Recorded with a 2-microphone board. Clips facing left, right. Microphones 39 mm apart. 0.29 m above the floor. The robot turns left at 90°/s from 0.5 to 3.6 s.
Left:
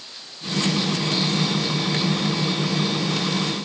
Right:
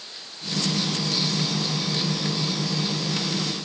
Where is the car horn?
No car horn in this recording.